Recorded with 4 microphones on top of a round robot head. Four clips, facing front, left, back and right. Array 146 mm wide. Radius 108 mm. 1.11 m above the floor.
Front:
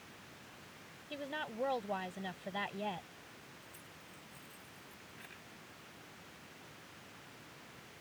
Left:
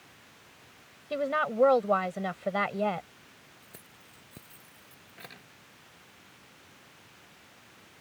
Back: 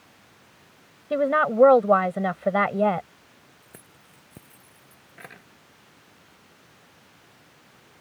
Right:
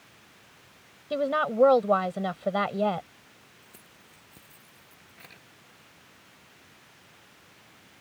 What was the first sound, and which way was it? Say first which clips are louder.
A woman speaking: right 3 dB, back 21 dB; 165° right.